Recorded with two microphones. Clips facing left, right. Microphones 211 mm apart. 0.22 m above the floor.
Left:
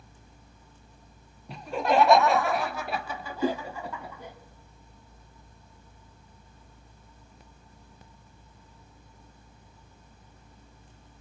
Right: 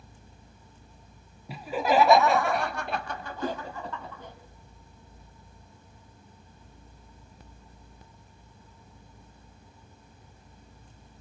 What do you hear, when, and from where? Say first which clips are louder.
1.5 s laughter: even; 5° right (ahead or behind), 1.4 m; by 4.3 s 10° left (ahead or behind), 1.6 m
3.4 s a whoosh: left 5 dB; 25° left (ahead or behind), 0.8 m